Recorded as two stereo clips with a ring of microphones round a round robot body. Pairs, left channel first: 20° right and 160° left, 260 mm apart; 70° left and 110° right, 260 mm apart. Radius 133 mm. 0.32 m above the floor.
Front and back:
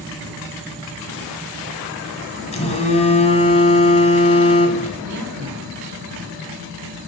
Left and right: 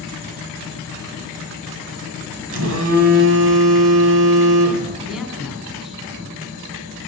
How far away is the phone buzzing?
About 2.0 m.